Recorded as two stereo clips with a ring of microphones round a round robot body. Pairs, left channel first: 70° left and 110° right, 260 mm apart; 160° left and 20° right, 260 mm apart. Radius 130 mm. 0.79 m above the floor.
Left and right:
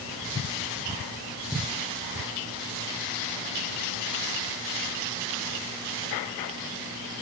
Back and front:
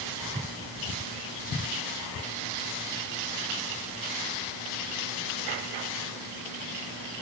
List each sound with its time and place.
Only background noise.